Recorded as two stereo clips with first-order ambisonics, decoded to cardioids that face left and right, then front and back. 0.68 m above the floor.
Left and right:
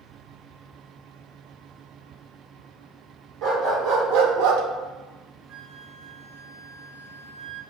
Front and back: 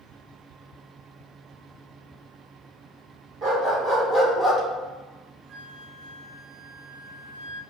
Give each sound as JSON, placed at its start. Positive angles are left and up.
{"t": 3.4, "sound": "a dog barking", "azimuth_deg": -120, "distance_m": 1.4}
{"t": 5.5, "sound": "a flute", "azimuth_deg": -120, "distance_m": 1.2}